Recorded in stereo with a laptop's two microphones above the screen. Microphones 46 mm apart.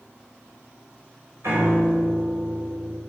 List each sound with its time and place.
1.4 s a piano: 70° right (ahead or behind), 4.5 m